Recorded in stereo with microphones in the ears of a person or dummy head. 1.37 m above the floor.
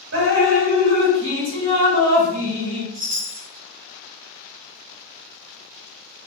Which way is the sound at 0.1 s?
55° right (ahead or behind).